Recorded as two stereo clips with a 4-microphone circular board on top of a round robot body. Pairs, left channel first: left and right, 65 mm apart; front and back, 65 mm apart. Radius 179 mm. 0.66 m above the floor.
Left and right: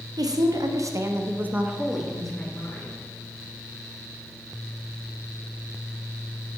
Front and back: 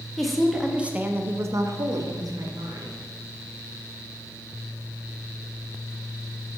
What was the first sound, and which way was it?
A woman speaking, 85° right.